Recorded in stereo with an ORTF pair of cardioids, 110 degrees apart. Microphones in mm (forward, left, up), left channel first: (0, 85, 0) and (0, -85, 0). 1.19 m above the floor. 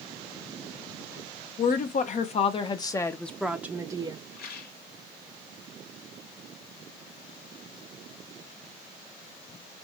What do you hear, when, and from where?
1.6 s a woman speaking: 55° left, 1.2 m; by 4.2 s 25° right, 0.9 m
4.3 s a rattle: 70° left, 2.0 m